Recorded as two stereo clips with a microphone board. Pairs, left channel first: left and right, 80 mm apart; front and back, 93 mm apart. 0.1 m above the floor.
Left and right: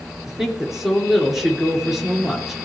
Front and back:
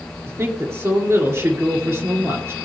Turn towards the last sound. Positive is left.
turn(degrees=-170)